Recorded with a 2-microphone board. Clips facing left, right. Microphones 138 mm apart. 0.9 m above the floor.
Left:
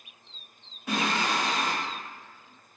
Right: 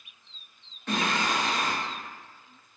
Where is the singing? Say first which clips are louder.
Even; 10° left (ahead or behind), 0.9 m.